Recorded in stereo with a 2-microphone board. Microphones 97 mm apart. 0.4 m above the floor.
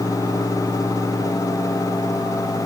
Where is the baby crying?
No baby crying in this recording.